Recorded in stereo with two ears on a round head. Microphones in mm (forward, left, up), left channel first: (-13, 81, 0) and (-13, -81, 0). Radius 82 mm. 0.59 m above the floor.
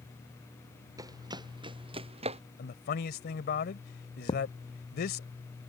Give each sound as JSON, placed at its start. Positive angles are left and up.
{"t": 1.0, "sound": "running footsteps", "side_deg": -20}
{"t": 2.6, "sound": "a man speaking", "side_deg": 60}
{"t": 4.3, "sound": "a thud", "side_deg": 25}